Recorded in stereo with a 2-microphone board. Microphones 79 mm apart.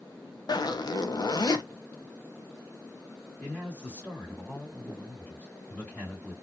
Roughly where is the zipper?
Left.